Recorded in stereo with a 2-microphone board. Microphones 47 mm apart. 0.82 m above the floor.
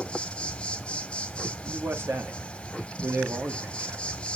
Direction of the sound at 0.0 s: 20° left (ahead or behind).